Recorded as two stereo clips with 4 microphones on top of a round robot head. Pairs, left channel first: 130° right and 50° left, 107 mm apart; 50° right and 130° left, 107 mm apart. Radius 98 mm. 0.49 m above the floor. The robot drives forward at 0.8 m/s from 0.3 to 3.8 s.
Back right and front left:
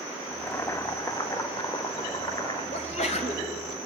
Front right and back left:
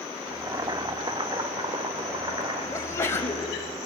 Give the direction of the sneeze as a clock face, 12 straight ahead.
4 o'clock.